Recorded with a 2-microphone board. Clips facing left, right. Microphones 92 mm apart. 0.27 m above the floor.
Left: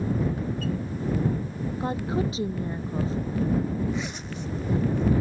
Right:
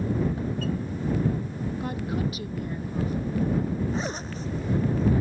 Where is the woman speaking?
25° left (ahead or behind).